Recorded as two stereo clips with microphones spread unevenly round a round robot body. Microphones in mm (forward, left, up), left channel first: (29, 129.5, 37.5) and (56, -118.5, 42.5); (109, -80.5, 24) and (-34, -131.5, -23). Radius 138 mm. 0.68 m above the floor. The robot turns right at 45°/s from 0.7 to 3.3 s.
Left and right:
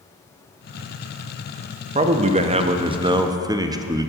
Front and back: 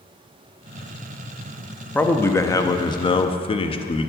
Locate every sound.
1.9 s a man speaking: 90° right, 0.5 m; by 4.1 s 30° right, 0.5 m